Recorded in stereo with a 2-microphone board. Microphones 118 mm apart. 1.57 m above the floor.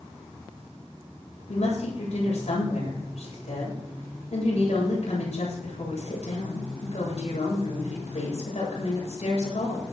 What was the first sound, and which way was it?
A woman speaking, 65° left (ahead or behind).